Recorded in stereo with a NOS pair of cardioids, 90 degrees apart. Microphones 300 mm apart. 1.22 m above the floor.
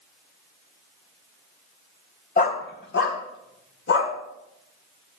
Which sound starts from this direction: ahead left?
A dog barking, at 2.4 s.